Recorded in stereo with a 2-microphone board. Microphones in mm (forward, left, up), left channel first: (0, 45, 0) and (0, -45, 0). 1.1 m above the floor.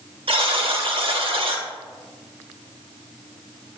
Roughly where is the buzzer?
Right.